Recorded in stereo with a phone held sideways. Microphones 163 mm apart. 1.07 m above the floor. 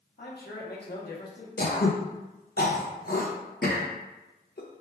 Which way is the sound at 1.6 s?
70° left (ahead or behind).